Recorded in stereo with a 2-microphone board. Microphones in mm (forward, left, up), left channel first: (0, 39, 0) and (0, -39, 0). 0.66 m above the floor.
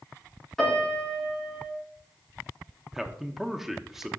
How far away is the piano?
About 5 m.